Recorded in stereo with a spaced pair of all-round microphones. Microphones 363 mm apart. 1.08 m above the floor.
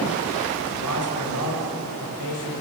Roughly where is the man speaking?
Left.